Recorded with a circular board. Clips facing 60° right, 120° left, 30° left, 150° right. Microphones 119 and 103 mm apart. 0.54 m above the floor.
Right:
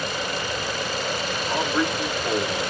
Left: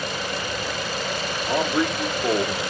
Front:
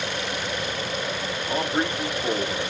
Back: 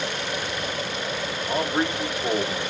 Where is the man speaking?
115° left, 1.7 m.